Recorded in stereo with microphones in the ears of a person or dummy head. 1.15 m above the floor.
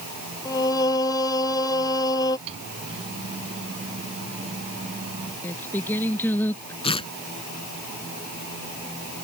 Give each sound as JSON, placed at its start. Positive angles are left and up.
{"t": 0.5, "sound": "singing", "side_deg": 20}
{"t": 2.5, "sound": "a microwave", "side_deg": -35}
{"t": 5.4, "sound": "singing", "side_deg": 10}
{"t": 6.8, "sound": "tearing paper", "side_deg": 30}